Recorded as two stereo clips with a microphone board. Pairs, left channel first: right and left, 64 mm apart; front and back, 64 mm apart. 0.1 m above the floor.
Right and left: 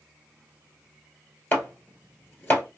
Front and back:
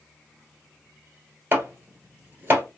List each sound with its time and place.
1.5 s chopping: 140° right, 1.5 m